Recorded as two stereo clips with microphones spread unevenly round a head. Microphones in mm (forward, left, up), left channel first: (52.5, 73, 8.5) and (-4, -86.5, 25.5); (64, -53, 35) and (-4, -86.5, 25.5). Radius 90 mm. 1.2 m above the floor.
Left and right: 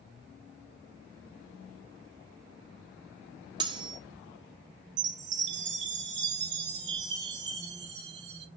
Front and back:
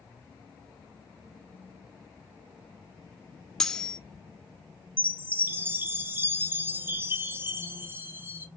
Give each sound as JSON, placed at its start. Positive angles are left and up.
{"t": 3.6, "sound": "cutlery clinking", "azimuth_deg": -50, "distance_m": 0.6}
{"t": 5.0, "sound": "a chime", "azimuth_deg": -90, "distance_m": 0.8}